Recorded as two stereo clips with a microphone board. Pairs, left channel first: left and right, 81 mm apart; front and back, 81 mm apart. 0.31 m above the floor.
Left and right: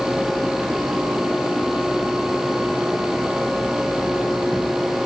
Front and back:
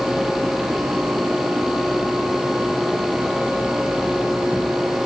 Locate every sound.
Only background noise.